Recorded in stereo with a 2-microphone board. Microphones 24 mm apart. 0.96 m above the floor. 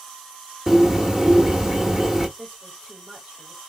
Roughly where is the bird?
Right.